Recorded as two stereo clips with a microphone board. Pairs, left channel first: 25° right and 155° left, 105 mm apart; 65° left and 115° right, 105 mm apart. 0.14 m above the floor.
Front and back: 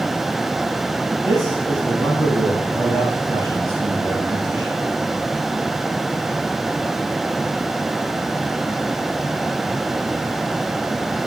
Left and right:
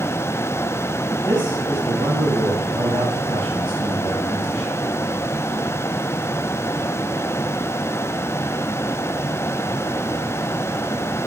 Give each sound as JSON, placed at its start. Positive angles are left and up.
{"t": 1.2, "sound": "a man speaking", "azimuth_deg": -150, "distance_m": 3.5}